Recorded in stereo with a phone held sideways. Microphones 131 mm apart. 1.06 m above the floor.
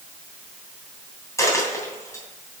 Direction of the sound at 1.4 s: 20° left (ahead or behind).